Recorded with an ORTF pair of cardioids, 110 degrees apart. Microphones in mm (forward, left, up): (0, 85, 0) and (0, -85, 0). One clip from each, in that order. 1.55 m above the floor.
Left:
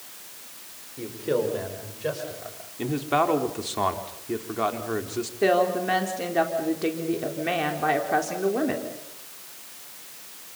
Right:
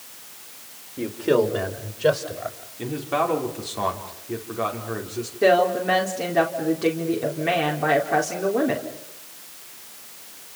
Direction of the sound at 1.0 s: 35° right.